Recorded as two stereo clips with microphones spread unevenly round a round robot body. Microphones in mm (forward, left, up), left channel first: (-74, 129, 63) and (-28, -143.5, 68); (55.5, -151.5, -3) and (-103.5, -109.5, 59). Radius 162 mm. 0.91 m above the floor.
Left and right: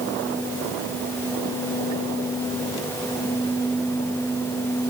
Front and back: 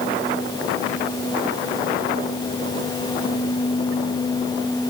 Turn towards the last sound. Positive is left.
No sound to turn to.